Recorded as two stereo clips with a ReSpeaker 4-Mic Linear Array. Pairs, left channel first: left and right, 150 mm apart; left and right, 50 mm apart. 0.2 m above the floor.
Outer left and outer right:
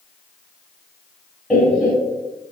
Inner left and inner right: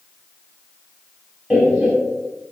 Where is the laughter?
Centre (ahead or behind), 1.0 m.